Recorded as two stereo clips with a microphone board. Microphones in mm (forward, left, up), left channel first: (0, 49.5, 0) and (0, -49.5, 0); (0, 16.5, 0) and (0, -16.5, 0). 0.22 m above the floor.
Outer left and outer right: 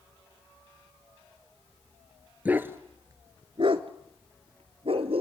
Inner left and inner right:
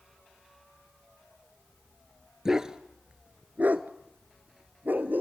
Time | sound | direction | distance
2.5 | a dog barking | 15° right (ahead or behind) | 1.5 m